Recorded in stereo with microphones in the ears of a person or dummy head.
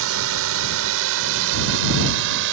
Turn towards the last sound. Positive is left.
turn(degrees=-60)  # may be behind; listen again after turning